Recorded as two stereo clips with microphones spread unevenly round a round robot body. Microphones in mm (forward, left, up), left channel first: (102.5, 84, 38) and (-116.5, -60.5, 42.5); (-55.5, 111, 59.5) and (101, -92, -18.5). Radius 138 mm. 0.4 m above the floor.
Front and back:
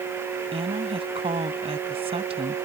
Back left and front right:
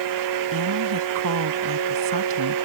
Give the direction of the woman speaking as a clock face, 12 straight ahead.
3 o'clock.